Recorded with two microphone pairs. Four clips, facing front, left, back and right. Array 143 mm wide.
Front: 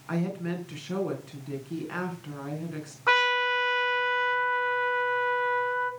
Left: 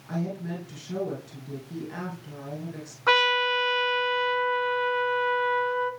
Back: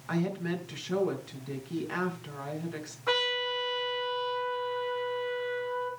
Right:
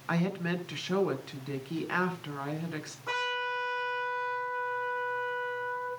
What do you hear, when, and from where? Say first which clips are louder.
0.1 s a woman speaking: right 1 dB, front 1 dB; 95° right, 4.5 m
3.1 s a trumpet: left 10 dB, front 6 dB; 60° left, 4 m